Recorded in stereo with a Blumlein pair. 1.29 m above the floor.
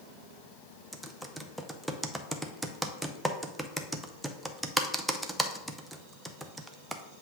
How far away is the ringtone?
No ringtone in this recording.